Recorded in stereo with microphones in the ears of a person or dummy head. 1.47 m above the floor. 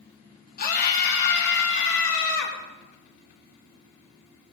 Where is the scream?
45° left (ahead or behind), 3.5 m; by 2.6 s 75° left (ahead or behind), 4 m.